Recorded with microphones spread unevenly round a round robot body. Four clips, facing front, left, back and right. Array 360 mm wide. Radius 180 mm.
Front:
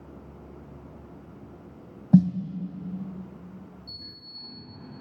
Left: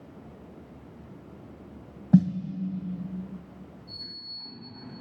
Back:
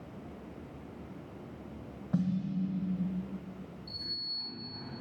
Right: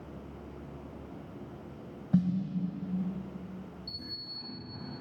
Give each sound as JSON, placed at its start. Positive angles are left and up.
{"t": 2.1, "sound": "a snare drum", "azimuth_deg": 35, "distance_m": 1.0}
{"t": 3.9, "sound": "a sliding door", "azimuth_deg": -65, "distance_m": 7.0}